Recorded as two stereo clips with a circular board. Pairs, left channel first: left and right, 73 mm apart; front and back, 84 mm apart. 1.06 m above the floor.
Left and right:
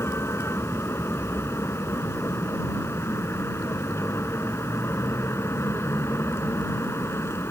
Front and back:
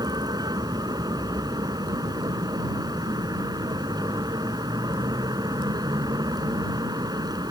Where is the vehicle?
145° left.